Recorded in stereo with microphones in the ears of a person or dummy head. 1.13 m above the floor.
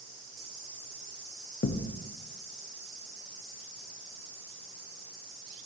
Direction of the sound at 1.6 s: 50° left (ahead or behind).